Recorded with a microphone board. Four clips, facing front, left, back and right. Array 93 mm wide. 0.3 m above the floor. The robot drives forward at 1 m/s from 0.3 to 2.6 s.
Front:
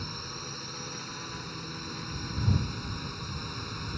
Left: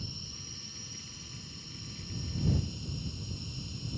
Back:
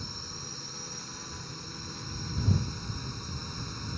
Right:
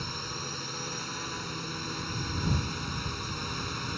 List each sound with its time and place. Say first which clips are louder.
0.0 s a drone: right 10 dB, front 4 dB; 70° right; by 4.0 s 75° right